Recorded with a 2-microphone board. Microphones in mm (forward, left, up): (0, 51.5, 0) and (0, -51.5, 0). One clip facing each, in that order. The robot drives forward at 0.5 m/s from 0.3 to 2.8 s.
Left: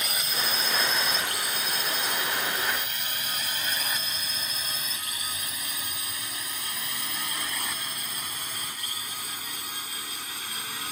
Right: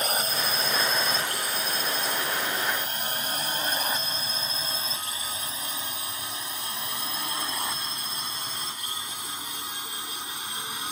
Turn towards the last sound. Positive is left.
turn(degrees=-20)  # may be behind; listen again after turning